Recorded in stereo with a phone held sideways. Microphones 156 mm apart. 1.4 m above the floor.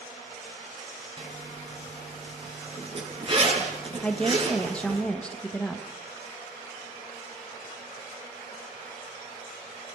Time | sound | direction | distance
1.2 | a zipper | 35° right (ahead or behind) | 6 m
4.0 | a woman speaking | 5° left (ahead or behind) | 1.8 m